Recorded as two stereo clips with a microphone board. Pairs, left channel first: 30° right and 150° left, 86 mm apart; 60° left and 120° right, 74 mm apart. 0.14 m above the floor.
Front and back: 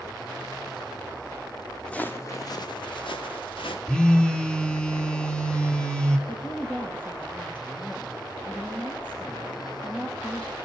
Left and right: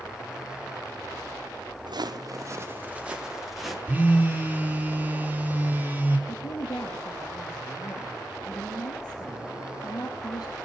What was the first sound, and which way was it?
Footsteps, 110° right.